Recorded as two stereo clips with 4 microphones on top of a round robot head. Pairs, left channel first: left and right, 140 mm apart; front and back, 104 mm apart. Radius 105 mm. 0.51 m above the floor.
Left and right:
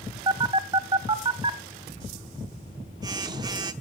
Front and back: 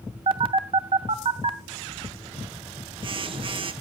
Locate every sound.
0.3 s a phone buzzing: 150° right, 0.7 m